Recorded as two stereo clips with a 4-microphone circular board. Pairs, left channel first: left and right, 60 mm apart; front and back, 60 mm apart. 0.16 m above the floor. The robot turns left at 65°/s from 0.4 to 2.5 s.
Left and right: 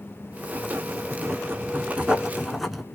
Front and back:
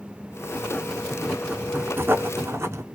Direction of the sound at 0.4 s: 45° right.